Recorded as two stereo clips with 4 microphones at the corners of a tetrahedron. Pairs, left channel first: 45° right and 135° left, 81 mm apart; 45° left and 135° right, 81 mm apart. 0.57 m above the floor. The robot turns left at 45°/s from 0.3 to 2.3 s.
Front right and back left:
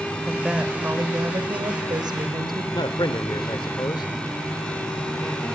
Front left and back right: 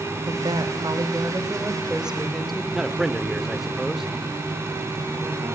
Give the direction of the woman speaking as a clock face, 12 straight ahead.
5 o'clock.